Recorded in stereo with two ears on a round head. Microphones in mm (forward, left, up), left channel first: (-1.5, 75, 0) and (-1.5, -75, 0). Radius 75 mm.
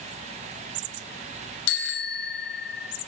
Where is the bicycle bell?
75° left (ahead or behind), 5 m.